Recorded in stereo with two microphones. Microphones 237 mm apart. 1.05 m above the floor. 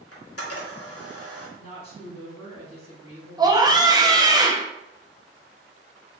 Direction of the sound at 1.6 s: 65° right (ahead or behind).